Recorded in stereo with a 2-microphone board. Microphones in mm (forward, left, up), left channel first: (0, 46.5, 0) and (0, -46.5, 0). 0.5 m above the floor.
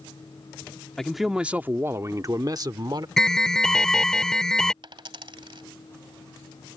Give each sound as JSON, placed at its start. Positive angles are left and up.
{"t": 1.0, "sound": "a man speaking", "side_deg": 5}
{"t": 3.2, "sound": "an alarm", "side_deg": 5}
{"t": 4.8, "sound": "a dropped coin", "side_deg": -65}